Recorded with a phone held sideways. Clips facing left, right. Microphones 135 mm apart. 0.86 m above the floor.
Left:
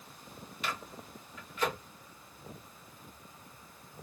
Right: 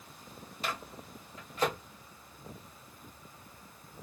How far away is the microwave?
About 1.6 m.